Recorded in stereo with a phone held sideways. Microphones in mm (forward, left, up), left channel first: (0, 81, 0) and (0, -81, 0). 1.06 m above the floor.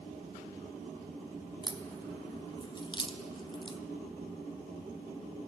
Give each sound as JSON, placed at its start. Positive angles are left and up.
{"t": 1.6, "sound": "a crack", "side_deg": 30, "distance_m": 0.7}